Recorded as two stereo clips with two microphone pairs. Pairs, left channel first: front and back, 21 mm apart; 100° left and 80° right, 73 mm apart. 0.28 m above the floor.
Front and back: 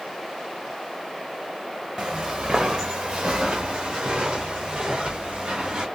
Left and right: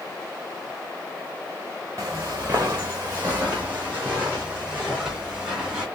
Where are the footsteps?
125° right, 1.3 m; by 5.9 s 155° right, 3.5 m.